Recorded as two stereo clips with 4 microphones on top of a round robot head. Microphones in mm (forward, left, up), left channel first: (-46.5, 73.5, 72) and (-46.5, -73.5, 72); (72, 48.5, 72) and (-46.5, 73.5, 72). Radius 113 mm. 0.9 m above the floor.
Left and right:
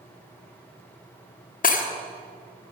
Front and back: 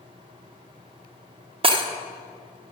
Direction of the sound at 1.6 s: 120° left.